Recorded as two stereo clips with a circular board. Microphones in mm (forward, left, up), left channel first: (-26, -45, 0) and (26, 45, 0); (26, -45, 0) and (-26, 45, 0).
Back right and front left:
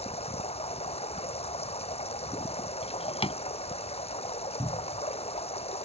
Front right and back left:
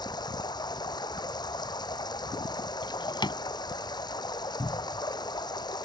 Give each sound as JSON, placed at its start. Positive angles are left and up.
{"t": 0.0, "sound": "running water", "azimuth_deg": -105}
{"t": 2.8, "sound": "a drawer", "azimuth_deg": -100}
{"t": 4.6, "sound": "a cupboard door", "azimuth_deg": -5}